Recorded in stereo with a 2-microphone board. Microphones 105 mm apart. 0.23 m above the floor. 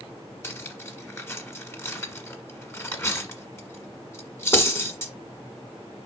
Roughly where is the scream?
No scream in this recording.